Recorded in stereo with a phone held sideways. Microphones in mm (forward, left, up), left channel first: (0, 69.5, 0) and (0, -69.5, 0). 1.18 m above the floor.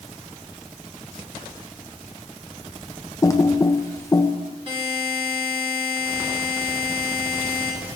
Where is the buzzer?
40° right (ahead or behind), 4.5 m.